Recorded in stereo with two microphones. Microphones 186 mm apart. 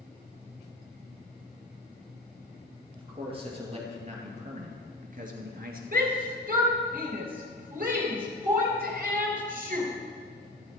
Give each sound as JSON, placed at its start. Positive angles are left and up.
{"t": 3.0, "sound": "a man speaking", "side_deg": -30, "distance_m": 3.0}
{"t": 5.9, "sound": "a shout", "side_deg": -50, "distance_m": 2.5}